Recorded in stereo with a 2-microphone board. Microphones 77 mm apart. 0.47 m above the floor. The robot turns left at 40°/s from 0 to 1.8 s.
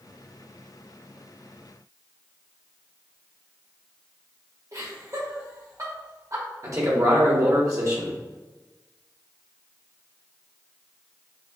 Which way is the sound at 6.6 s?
45° right (ahead or behind).